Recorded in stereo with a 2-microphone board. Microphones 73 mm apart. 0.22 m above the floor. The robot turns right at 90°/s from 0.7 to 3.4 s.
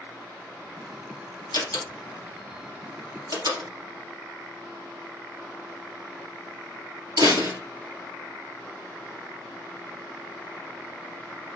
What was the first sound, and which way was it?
A door slam, 70° left (ahead or behind).